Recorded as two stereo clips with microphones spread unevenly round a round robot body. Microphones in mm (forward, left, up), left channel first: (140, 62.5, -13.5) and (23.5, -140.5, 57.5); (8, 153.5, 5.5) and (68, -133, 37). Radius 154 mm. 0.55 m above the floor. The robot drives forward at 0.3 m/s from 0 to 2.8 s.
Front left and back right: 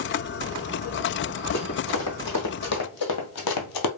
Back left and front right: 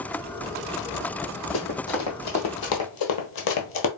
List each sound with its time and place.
1.5 s running footsteps: 110° left, 1.3 m; by 3.9 s 65° left, 0.8 m